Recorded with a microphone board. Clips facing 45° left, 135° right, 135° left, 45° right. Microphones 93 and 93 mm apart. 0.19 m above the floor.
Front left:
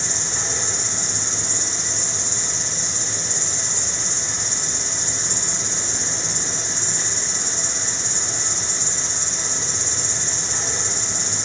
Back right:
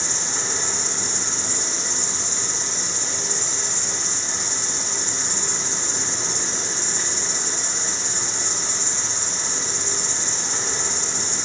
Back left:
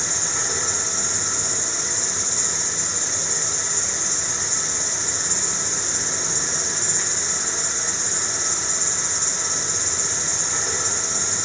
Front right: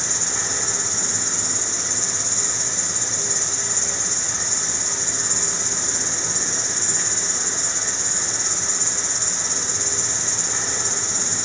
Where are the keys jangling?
No keys jangling in this recording.